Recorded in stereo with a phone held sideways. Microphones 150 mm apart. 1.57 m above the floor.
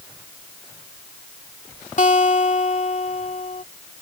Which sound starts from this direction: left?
A guitar, at 2.0 s.